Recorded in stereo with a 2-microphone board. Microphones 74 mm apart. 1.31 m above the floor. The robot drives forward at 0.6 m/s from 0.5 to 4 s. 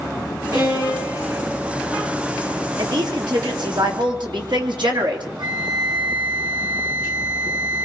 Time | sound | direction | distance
0.5 | a violin | 65° right (ahead or behind) | 6.5 m
2.8 | a woman speaking | 70° right (ahead or behind) | 3 m
5.4 | a flute | 75° right (ahead or behind) | 1.9 m